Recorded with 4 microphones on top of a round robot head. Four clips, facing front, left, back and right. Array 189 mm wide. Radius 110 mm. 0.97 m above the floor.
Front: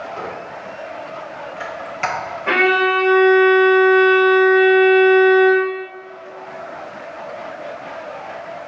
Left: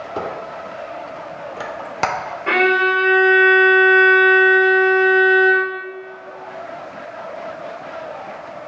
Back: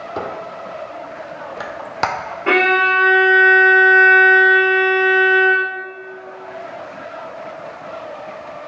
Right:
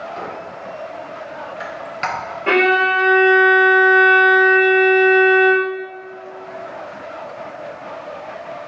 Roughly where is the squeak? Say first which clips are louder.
Left 3 dB, back 2 dB; behind left.